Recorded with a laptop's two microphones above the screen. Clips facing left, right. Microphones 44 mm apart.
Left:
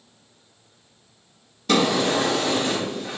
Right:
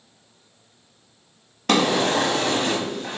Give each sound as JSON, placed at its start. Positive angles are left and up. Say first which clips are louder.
{"t": 1.7, "sound": "a drawer", "louder": "right 1 dB", "side_deg": -65, "distance_m": 1.0}